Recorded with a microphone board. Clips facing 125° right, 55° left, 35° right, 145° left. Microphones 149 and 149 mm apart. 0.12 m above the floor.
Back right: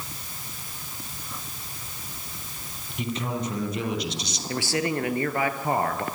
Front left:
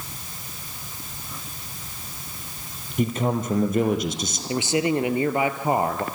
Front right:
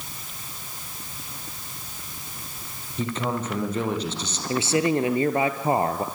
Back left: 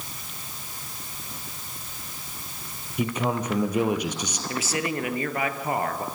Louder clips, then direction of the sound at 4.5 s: Front left 4 dB, front right 8 dB; straight ahead.